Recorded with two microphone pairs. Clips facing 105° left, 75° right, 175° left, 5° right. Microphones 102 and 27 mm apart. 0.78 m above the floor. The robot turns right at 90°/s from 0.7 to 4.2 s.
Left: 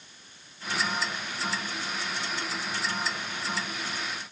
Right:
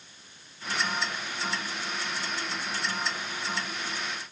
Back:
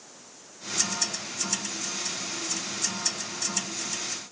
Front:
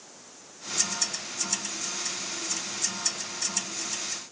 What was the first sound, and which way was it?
Only background noise.